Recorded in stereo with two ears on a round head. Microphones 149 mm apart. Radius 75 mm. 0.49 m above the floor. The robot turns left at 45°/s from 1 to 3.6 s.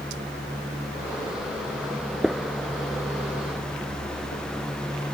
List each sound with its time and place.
2.2 s a gunshot: centre (ahead or behind); by 4.4 s 60° left (ahead or behind)